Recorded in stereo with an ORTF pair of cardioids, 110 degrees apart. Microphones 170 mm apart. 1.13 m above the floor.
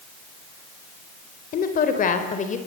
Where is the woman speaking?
55° left, 3.5 m; by 2.6 s 40° left, 4 m.